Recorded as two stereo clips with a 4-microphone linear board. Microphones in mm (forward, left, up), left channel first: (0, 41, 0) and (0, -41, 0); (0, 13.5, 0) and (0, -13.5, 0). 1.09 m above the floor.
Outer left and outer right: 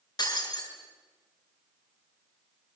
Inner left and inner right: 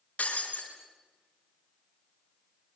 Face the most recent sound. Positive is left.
turn(degrees=55)  # may be behind; listen again after turning